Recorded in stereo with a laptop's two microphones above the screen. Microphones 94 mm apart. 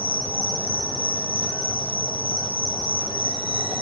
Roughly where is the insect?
Left.